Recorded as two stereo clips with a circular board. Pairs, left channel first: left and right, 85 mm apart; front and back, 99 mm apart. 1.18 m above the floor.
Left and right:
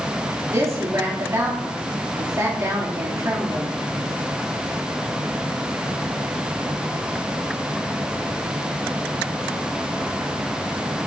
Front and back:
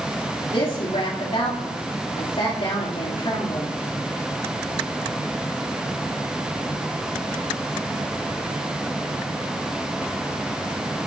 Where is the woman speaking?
30° right, 3 m.